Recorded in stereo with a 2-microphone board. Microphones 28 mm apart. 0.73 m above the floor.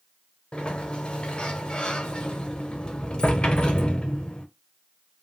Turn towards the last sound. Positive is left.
turn(degrees=35)  # may be behind; listen again after turning